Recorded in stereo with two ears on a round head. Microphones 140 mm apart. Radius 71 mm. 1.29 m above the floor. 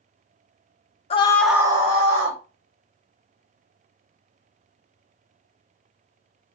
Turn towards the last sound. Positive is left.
turn(degrees=-55)  # may be behind; listen again after turning